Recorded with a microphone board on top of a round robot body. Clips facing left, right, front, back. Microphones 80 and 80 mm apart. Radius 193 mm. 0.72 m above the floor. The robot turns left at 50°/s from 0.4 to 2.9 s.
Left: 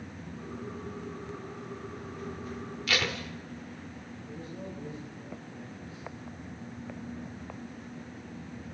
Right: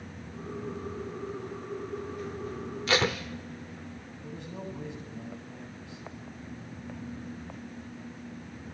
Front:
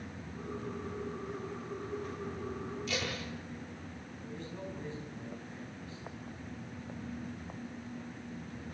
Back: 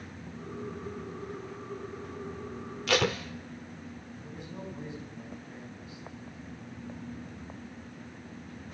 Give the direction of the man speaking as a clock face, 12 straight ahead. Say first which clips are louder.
Right 2 dB, even; 3 o'clock.